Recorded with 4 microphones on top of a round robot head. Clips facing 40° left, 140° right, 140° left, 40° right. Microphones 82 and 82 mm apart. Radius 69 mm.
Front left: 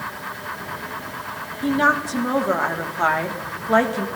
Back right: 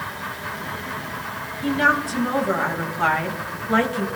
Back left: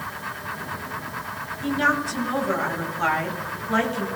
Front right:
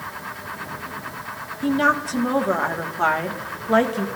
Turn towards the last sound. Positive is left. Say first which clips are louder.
# front left 1 dB, front right 3 dB
turn(degrees=-15)